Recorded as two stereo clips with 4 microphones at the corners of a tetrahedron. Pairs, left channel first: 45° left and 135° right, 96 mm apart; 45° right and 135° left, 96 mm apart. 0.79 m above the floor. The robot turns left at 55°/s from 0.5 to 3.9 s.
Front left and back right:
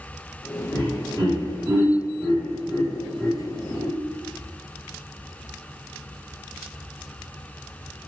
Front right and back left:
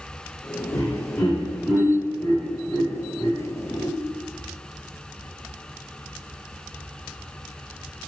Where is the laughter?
90° right, 1.5 m; by 3.9 s 95° left, 1.5 m.